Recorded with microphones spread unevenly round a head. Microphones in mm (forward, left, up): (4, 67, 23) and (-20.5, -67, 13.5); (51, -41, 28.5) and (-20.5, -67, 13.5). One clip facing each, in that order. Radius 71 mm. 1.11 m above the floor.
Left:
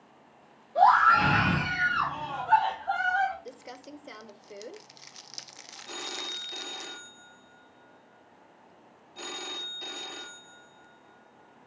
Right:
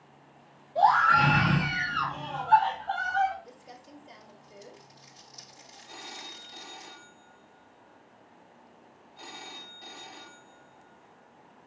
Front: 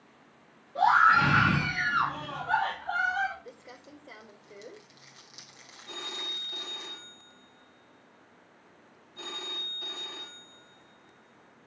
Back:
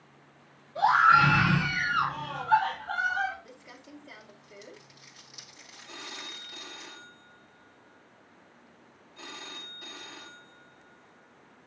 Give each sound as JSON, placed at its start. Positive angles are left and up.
{"t": 0.8, "sound": "a scream", "azimuth_deg": 60, "distance_m": 4.5}
{"t": 3.5, "sound": "crumpling", "azimuth_deg": 95, "distance_m": 0.6}
{"t": 5.9, "sound": "a phone ringing", "azimuth_deg": 85, "distance_m": 0.8}